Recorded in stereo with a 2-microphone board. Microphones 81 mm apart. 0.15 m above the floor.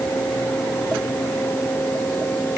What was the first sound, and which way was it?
Only background noise.